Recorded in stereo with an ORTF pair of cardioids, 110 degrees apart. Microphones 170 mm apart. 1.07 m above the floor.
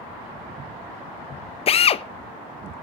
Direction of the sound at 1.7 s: 35° left.